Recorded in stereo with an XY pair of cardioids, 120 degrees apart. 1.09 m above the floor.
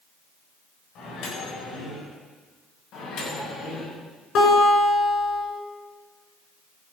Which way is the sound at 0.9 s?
70° left.